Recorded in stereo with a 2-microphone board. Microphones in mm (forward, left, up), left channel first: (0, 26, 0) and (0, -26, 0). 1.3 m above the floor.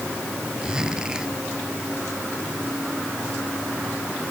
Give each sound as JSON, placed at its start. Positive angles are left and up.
{"t": 0.6, "sound": "a zipper", "side_deg": -15}